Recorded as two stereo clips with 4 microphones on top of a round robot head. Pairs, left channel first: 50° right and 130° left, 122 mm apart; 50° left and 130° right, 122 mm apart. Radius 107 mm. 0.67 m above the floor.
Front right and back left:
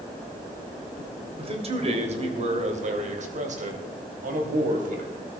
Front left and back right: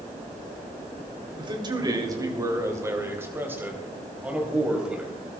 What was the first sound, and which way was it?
A man speaking, 175° left.